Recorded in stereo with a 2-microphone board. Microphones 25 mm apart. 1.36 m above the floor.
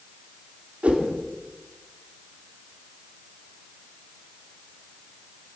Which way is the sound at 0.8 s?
70° right (ahead or behind).